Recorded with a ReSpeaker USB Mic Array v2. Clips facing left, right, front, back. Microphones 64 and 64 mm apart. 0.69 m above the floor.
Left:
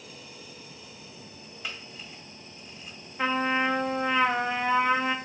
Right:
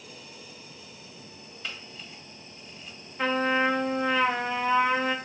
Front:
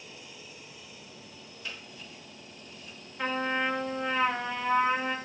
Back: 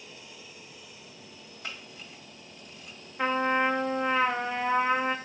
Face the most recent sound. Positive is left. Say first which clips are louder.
# right 1 dB, back 4 dB
turn(degrees=155)